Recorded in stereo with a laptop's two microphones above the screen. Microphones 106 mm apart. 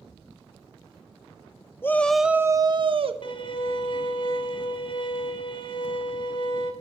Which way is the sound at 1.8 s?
20° left (ahead or behind).